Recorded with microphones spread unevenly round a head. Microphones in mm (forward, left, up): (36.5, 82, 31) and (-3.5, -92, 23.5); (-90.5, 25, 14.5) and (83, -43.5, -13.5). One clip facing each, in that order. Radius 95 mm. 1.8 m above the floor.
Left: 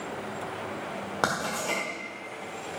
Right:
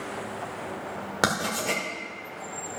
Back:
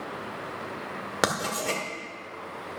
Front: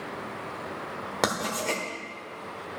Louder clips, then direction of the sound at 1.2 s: Right 3 dB, even; 150° right.